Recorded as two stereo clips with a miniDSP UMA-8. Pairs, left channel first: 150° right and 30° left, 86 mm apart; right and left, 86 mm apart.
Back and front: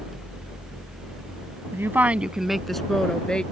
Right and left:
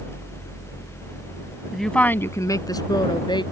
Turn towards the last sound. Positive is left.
turn(degrees=-70)